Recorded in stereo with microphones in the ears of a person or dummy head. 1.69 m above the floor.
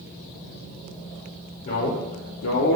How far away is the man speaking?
About 0.8 m.